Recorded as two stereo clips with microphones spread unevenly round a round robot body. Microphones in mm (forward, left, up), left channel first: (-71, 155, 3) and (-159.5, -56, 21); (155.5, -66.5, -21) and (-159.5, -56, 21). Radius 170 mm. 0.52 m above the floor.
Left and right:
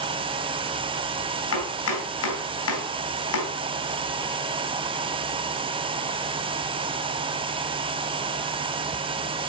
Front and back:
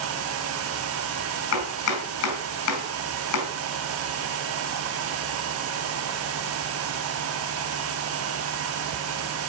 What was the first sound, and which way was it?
Chopping, 40° left.